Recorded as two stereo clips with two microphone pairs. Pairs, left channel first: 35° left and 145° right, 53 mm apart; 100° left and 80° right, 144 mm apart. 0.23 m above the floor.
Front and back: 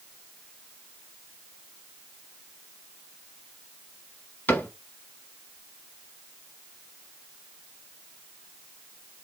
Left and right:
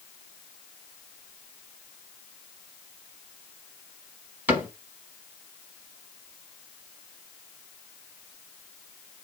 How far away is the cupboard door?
About 1.2 m.